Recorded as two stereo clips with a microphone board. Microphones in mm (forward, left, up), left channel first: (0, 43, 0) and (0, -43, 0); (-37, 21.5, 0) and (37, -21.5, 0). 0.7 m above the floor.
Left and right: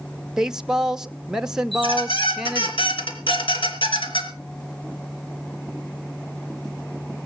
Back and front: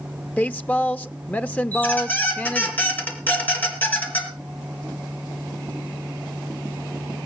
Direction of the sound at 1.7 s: 80° left.